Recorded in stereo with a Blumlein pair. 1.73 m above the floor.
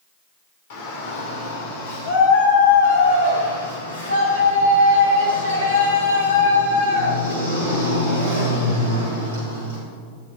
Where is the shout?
50° left, 4 m; by 9.8 s 80° left, 11 m.